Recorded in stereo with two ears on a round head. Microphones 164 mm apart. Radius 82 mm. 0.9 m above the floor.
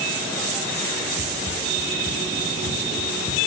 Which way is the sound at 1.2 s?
50° left (ahead or behind).